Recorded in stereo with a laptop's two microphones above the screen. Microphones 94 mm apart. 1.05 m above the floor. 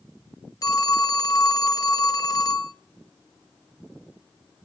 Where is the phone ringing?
40° left (ahead or behind), 0.5 m.